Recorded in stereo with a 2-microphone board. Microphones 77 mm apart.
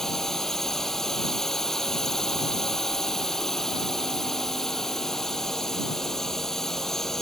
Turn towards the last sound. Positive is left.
turn(degrees=5)  # may be behind; listen again after turning